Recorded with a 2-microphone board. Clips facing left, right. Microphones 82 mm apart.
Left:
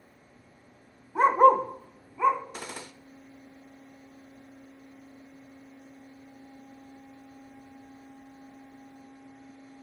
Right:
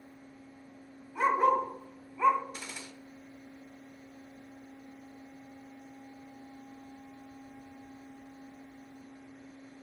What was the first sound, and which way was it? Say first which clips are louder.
A dog barking: left 7 dB; 50° left (ahead or behind).